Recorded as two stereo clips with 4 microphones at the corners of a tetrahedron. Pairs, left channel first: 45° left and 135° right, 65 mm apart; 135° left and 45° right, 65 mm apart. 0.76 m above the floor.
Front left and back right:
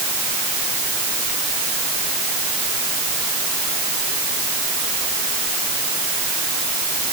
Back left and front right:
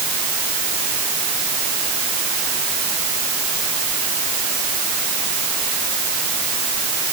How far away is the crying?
No crying in this recording.